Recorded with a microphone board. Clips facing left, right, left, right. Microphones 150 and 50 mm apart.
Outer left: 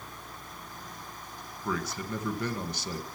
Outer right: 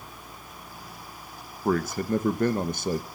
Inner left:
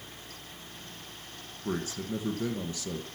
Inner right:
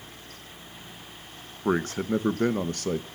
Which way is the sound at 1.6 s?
50° right (ahead or behind).